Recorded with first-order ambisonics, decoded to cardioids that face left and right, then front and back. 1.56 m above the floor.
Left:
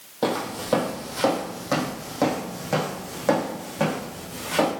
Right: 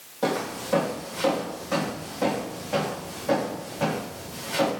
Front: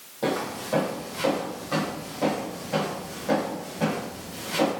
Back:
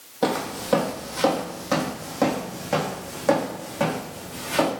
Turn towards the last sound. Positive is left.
turn(degrees=130)